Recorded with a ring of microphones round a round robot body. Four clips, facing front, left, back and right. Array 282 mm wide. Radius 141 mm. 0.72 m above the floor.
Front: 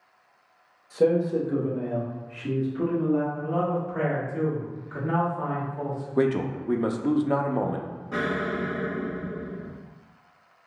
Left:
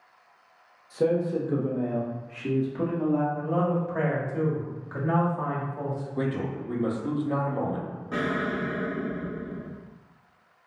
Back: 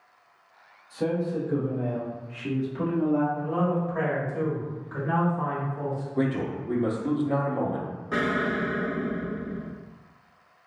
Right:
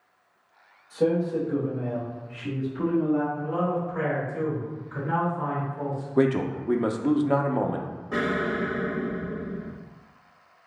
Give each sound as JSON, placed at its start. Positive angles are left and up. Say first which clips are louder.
{"t": 0.9, "sound": "a man speaking", "louder": "right 1 dB, front 6 dB", "azimuth_deg": 25, "distance_m": 1.0}
{"t": 3.4, "sound": "a man speaking", "louder": "left 1 dB, even", "azimuth_deg": 90, "distance_m": 1.7}
{"t": 6.2, "sound": "a man speaking", "louder": "right 9 dB, front 4 dB", "azimuth_deg": -60, "distance_m": 0.5}
{"t": 8.1, "sound": "an explosion", "louder": "right 2 dB, back 2 dB", "azimuth_deg": -175, "distance_m": 1.0}